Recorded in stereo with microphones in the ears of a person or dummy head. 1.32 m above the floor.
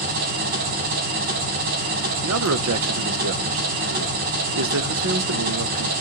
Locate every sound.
0.0 s an engine running: 50° right (ahead or behind), 1.5 m
2.2 s a man speaking: 75° right (ahead or behind), 0.6 m